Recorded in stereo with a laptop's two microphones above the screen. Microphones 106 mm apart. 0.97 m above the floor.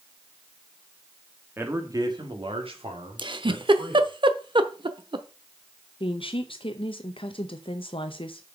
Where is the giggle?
50° right (ahead or behind), 0.8 m.